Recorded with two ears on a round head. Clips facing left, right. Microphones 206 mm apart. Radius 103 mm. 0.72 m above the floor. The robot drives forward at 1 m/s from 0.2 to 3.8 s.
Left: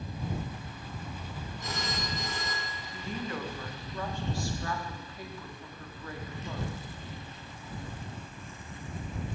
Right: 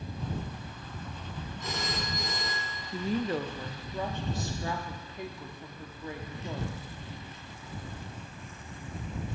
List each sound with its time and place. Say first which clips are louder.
1.6 s a phone ringing: right 1 dB; 65° right (ahead or behind), 2.5 m; by 2.8 s 85° right, 2.5 m
2.9 s a woman speaking: right 7 dB; 30° right (ahead or behind), 0.6 m; by 6.7 s 20° right (ahead or behind), 0.9 m